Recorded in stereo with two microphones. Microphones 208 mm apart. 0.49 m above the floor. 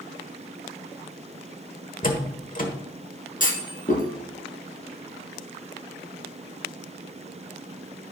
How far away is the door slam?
About 1.5 m.